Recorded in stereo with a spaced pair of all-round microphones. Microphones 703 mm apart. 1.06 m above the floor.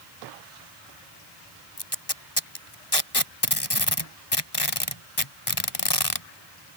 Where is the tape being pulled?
35° left (ahead or behind).